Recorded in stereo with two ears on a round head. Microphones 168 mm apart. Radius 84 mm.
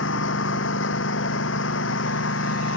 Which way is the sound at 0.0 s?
75° left (ahead or behind).